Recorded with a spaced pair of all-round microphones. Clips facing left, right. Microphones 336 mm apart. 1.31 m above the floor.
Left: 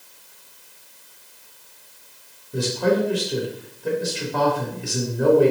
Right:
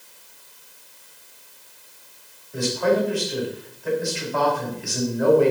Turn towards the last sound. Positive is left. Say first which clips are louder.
# even
turn(degrees=45)  # may be behind; listen again after turning